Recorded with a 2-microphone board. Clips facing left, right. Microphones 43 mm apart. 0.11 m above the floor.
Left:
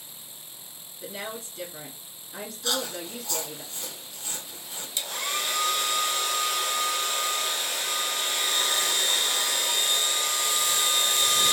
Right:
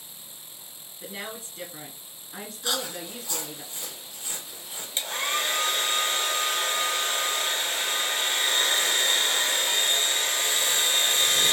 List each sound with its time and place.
1.0 s a woman speaking: 20° right (ahead or behind), 1.2 m
2.6 s chewing: 20° right (ahead or behind), 1.0 m
5.0 s a hair dryer: 35° right (ahead or behind), 0.6 m